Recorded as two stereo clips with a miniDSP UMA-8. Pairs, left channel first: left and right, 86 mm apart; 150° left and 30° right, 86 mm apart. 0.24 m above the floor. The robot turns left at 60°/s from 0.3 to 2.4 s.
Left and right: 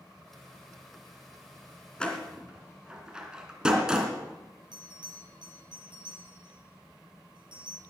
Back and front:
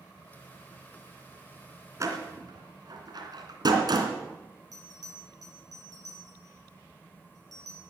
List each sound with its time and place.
2.0 s a door slam: 15° left, 2.5 m; by 4.1 s 10° right, 2.5 m
4.7 s a bell: 75° right, 5.5 m